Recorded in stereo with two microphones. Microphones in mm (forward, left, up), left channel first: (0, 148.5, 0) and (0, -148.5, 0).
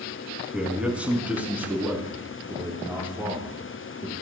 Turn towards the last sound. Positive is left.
turn(degrees=-10)  # may be behind; listen again after turning